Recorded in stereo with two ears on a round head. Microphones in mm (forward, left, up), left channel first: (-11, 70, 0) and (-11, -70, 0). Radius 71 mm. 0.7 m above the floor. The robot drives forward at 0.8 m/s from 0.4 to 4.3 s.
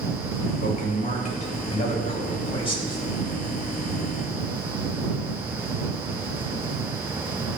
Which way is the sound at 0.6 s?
60° left (ahead or behind).